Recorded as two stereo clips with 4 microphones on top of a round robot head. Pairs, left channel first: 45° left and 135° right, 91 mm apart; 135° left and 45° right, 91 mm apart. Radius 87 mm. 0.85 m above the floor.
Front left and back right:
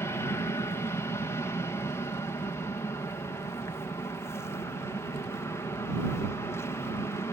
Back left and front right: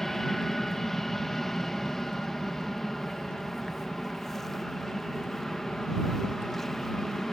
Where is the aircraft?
55° left.